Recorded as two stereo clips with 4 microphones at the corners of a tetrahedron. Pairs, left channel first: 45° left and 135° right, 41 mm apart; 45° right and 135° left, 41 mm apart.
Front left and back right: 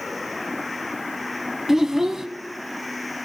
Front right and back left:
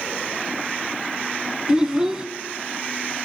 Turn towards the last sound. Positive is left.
turn(degrees=165)